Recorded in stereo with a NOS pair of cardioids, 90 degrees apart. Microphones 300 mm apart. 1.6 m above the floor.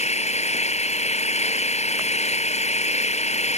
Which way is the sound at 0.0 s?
20° left.